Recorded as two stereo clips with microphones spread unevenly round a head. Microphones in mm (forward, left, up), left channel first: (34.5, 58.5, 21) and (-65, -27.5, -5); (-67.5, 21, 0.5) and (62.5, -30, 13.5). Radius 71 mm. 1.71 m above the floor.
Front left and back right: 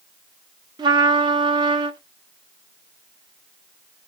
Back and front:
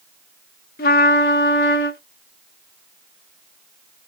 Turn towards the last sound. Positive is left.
turn(degrees=160)